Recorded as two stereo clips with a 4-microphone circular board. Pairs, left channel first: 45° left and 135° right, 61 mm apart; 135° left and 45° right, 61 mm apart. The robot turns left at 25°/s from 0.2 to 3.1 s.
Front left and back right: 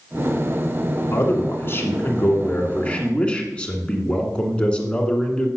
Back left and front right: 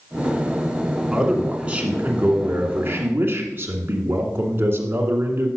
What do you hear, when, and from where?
1.1 s a man speaking: 30° left, 1.6 m; by 5.5 s 20° right, 1.6 m